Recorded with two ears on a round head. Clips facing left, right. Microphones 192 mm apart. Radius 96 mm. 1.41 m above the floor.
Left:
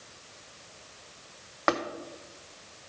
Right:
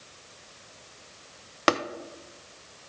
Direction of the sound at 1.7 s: 40° right (ahead or behind).